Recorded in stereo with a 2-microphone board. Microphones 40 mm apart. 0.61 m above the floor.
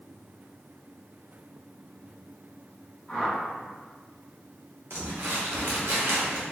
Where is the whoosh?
10° left (ahead or behind), 1.9 m.